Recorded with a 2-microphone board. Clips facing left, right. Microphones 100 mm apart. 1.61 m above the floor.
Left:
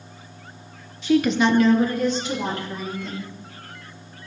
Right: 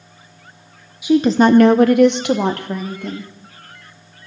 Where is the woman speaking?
10° right (ahead or behind), 0.8 m; by 3.3 s 55° right (ahead or behind), 2.5 m.